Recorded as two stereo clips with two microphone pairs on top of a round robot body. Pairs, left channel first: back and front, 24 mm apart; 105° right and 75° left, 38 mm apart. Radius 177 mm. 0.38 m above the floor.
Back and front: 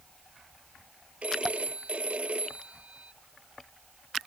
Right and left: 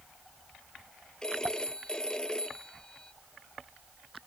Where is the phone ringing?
30° right.